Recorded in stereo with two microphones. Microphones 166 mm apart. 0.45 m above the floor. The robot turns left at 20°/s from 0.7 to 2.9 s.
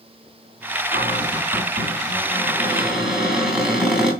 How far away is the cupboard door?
About 3 m.